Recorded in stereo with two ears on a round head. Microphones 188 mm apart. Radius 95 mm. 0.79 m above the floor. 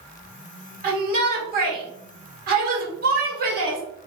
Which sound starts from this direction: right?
A shout, at 0.8 s.